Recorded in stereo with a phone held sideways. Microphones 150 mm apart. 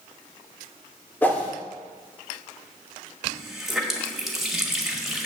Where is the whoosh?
10° left (ahead or behind), 1.5 m.